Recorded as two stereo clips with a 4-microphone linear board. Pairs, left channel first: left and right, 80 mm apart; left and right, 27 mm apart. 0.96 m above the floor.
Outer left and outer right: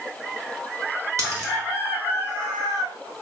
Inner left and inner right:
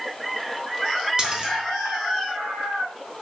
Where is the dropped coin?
40° right (ahead or behind), 0.8 m.